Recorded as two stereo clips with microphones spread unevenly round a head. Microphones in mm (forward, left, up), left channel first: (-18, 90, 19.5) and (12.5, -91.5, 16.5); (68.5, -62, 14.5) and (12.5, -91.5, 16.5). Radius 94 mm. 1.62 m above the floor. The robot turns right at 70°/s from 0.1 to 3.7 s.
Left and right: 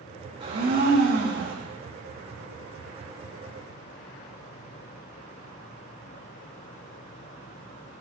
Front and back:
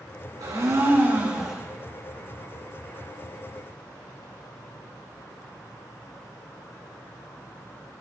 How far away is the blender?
About 4.5 m.